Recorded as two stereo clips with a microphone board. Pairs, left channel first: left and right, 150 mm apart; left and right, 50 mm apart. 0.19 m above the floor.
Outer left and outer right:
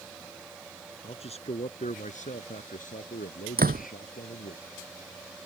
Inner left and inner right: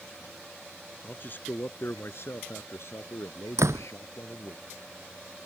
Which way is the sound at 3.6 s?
75° right (ahead or behind).